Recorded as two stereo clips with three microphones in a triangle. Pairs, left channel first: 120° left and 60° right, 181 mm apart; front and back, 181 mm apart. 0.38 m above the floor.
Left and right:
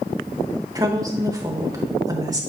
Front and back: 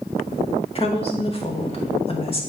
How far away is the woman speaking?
About 1.2 m.